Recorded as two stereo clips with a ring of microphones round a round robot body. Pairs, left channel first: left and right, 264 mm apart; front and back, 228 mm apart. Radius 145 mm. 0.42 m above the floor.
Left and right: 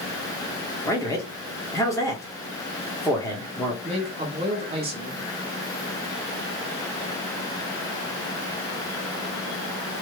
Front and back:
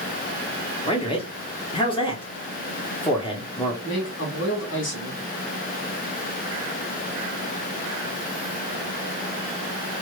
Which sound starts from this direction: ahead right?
A man speaking, at 3.8 s.